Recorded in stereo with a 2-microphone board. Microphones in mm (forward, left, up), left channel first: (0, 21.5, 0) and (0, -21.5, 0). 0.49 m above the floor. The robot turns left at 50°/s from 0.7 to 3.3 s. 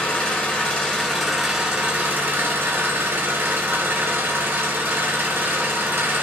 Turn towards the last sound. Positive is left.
turn(degrees=-100)